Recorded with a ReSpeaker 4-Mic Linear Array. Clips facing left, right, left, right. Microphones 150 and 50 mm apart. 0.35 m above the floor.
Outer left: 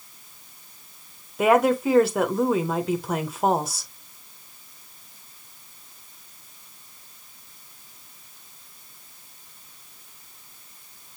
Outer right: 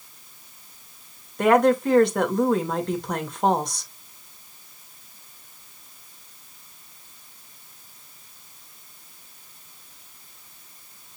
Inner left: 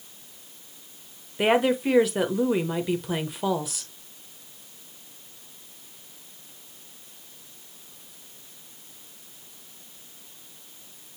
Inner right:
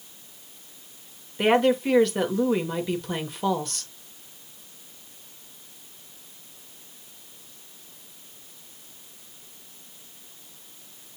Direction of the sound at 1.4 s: 5° left (ahead or behind).